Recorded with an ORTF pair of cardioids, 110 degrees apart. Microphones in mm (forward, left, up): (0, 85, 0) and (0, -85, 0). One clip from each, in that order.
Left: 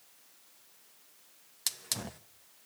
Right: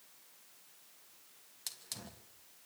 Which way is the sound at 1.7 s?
50° left.